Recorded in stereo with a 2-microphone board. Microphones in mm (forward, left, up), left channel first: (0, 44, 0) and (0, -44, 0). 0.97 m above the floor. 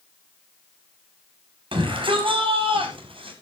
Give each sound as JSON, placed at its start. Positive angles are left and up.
{"t": 1.7, "sound": "a shout", "side_deg": -75, "distance_m": 8.0}